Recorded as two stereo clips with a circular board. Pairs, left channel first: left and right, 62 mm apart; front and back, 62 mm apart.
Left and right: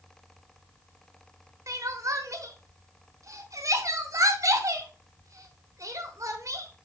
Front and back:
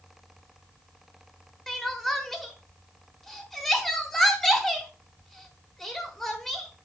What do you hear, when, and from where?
1.7 s crying: 85° right, 1.1 m